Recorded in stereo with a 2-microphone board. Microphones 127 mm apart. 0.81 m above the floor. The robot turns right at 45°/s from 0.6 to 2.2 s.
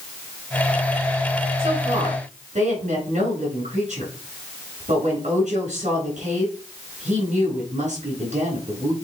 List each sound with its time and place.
1.6 s a woman speaking: 45° right (ahead or behind), 4 m; by 8.9 s 75° right (ahead or behind), 4 m